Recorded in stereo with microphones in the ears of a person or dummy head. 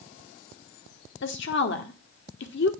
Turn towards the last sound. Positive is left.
turn(degrees=60)  # may be behind; listen again after turning